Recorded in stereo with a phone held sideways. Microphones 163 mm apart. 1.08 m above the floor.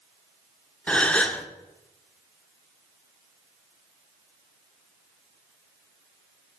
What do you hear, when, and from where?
0.9 s a gasp: 5° left (ahead or behind), 0.8 m